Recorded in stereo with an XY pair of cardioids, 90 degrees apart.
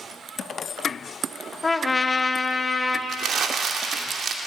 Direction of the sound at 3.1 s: 70° right.